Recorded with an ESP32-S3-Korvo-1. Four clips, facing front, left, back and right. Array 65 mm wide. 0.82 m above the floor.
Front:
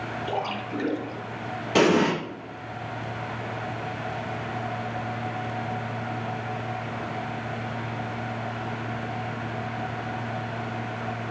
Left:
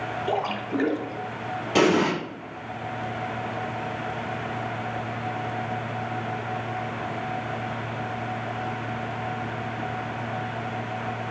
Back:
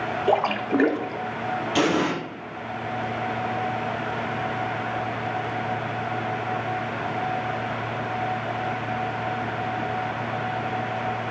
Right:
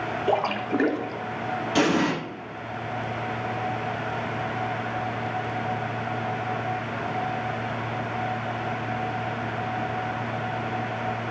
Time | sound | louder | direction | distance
0.3 | a splash | right 3 dB, back 9 dB | 165° right | 0.8 m
1.8 | an explosion | left 2 dB, front 3 dB | 35° left | 4 m